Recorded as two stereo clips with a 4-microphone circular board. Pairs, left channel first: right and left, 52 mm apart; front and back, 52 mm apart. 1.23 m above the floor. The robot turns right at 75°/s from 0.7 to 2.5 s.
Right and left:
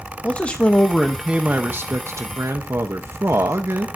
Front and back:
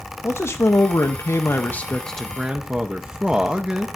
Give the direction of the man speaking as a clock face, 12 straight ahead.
1 o'clock.